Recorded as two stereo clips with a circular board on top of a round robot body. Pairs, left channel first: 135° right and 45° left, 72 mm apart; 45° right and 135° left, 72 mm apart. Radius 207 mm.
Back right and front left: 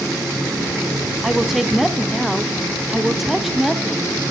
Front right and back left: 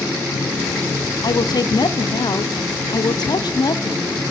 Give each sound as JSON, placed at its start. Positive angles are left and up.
{"t": 1.2, "sound": "a woman speaking", "azimuth_deg": -40, "distance_m": 1.7}